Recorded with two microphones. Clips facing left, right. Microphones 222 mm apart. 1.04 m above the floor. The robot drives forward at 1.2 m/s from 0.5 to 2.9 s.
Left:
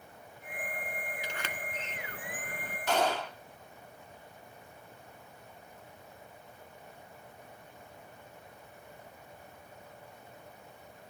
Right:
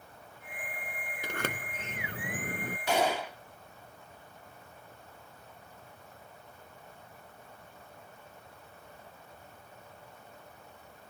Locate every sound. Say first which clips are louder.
1.2 s a sliding door: right 4 dB; 55° right (ahead or behind); by 2.8 s 50° right (ahead or behind)
2.9 s a gunshot: right 1 dB; 10° right (ahead or behind)